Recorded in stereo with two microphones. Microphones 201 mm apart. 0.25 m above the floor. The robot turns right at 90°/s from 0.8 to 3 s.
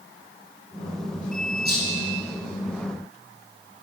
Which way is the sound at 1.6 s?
50° right (ahead or behind).